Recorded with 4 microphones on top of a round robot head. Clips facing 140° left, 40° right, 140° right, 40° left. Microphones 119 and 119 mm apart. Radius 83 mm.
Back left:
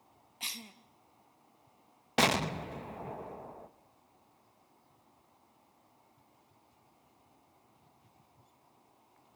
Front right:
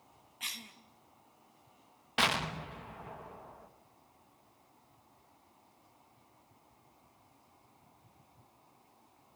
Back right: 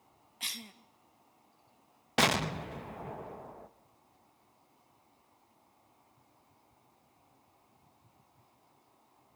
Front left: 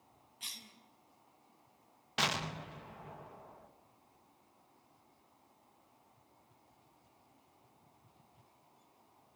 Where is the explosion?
175° right, 0.9 m.